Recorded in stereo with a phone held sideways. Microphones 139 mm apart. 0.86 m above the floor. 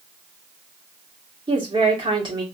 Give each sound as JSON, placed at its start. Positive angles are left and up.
{"t": 1.5, "sound": "a woman speaking", "side_deg": -35, "distance_m": 1.7}